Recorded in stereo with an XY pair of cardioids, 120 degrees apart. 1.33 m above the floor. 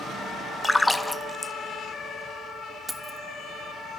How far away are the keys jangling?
About 1.4 m.